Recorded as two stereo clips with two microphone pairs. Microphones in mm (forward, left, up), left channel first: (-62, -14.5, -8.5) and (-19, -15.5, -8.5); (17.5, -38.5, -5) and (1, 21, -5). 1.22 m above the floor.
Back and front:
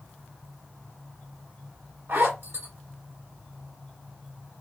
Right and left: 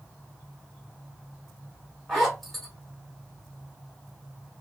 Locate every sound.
2.1 s a zipper: 10° left, 1.6 m